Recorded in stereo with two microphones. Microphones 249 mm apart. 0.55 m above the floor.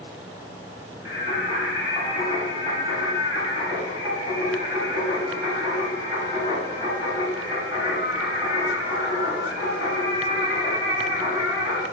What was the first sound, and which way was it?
Singing, 15° right (ahead or behind).